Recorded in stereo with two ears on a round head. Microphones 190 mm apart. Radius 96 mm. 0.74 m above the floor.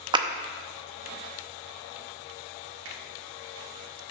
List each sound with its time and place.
0.1 s a clap: 20° right (ahead or behind), 0.6 m
2.9 s a finger snap: 60° right (ahead or behind), 1.8 m